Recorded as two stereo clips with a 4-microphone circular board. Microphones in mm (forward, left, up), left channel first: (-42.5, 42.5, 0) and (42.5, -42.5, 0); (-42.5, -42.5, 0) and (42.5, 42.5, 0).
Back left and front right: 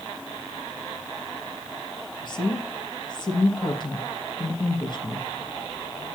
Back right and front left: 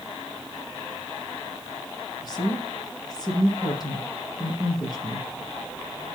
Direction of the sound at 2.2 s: 175° left.